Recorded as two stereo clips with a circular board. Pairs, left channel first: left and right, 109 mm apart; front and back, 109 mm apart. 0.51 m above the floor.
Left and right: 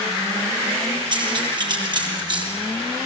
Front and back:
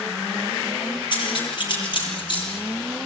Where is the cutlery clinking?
45° right, 7 m.